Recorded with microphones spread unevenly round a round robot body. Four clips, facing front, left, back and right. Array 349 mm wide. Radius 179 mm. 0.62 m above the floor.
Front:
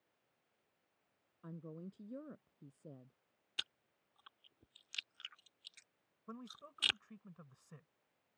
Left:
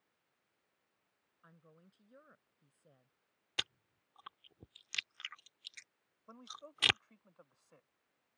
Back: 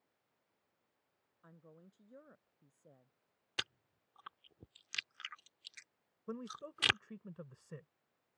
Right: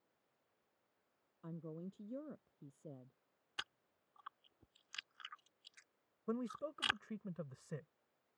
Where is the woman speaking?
50° right.